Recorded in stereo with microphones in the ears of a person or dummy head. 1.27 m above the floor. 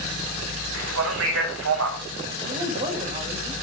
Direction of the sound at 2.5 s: 40° right (ahead or behind).